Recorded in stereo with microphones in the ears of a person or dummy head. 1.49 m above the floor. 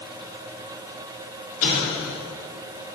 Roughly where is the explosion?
Left.